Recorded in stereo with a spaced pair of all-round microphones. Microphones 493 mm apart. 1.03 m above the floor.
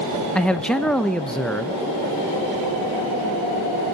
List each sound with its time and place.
0.3 s a man speaking: centre (ahead or behind), 0.6 m